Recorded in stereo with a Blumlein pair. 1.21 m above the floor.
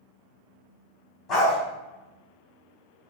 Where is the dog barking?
20° left, 2.0 m.